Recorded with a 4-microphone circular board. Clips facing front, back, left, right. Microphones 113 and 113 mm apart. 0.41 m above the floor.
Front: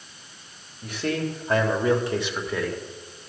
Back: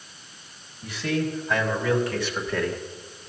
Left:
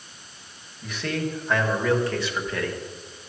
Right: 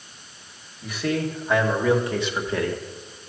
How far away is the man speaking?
About 1.9 m.